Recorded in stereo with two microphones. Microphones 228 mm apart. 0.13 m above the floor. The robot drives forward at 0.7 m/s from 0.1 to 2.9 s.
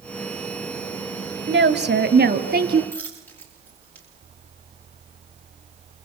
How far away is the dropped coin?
About 9.5 m.